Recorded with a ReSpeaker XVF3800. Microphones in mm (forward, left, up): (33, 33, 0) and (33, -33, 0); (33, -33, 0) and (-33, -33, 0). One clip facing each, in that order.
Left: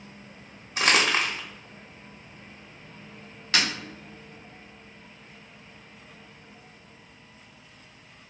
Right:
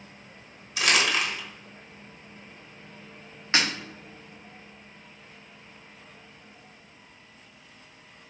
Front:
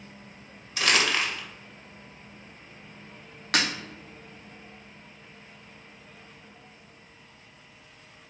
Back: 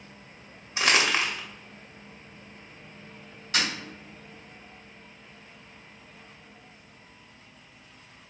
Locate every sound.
0.8 s crumpling: 125° left, 0.6 m
3.5 s breaking glass: 25° right, 0.6 m